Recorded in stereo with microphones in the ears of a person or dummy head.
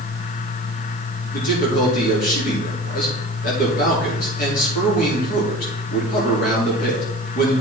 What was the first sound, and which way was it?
A man speaking, 50° left (ahead or behind).